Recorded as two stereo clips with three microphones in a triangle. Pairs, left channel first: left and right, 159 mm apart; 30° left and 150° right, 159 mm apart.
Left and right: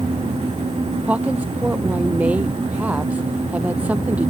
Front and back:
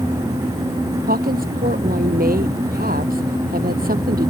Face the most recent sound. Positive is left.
turn(degrees=-170)